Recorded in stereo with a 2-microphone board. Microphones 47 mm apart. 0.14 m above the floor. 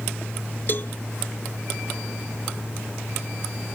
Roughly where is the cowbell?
Left.